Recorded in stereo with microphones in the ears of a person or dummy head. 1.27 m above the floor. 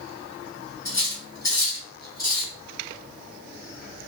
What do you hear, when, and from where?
0.8 s cutlery clinking: 30° left (ahead or behind), 1.3 m